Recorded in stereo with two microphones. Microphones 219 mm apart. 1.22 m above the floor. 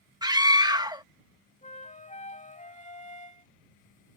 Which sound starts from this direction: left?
A flute, at 1.6 s.